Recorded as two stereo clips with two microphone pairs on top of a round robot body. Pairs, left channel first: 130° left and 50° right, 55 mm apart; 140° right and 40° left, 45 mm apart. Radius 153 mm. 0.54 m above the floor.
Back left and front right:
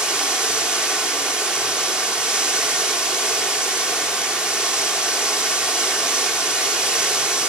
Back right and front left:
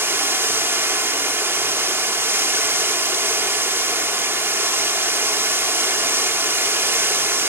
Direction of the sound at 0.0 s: 35° left.